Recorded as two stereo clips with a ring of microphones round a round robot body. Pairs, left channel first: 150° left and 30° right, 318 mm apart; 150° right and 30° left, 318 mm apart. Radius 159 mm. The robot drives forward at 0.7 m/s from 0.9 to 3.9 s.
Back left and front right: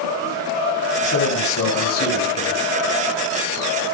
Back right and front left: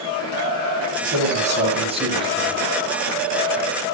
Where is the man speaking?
95° left, 6 m; by 2.6 s 105° left, 6 m.